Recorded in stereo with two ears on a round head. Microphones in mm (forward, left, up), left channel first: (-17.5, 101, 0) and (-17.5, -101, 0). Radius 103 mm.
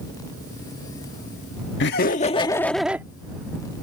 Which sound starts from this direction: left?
Laughter, at 1.8 s.